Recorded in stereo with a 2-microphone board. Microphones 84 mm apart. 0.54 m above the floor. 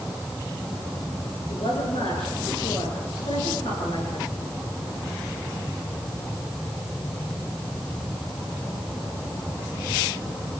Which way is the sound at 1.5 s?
80° left.